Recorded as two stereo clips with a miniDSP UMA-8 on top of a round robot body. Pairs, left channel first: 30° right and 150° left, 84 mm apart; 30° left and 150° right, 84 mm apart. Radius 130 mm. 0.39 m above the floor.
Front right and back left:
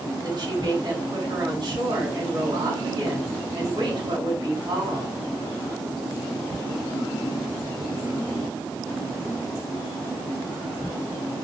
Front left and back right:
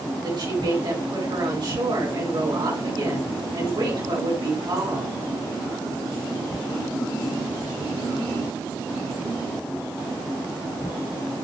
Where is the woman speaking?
Straight behind, 5 m.